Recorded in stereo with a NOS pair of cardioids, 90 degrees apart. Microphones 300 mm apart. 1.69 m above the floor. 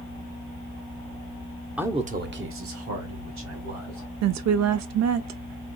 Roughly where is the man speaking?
Ahead.